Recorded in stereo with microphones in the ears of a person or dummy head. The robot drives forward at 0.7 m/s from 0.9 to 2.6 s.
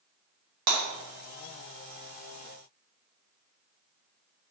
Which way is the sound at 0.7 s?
55° right (ahead or behind).